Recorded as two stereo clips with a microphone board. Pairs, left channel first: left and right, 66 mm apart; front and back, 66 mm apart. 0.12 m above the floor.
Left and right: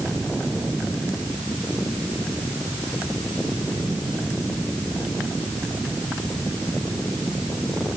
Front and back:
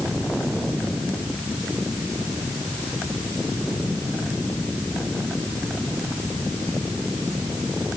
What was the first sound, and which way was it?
Only background noise.